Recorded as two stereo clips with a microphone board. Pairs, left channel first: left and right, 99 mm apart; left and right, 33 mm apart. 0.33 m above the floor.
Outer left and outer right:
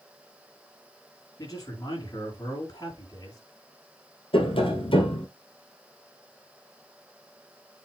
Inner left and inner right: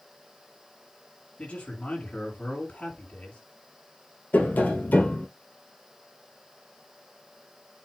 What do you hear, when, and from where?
1.4 s a man speaking: 40° left (ahead or behind), 5.5 m
4.3 s tapping: 65° left (ahead or behind), 2.0 m